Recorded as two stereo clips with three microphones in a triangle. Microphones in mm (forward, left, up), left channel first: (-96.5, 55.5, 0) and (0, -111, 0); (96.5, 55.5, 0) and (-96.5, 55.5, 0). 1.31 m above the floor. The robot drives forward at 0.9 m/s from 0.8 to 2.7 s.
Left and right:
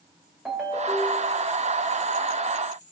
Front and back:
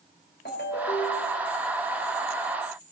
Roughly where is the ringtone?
Ahead left.